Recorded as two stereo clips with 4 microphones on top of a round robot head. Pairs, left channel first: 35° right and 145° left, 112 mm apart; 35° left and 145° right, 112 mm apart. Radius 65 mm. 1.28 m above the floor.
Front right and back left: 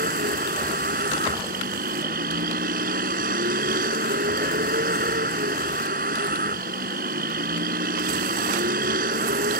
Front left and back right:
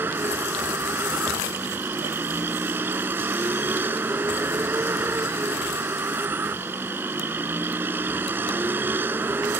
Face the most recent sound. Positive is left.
turn(degrees=140)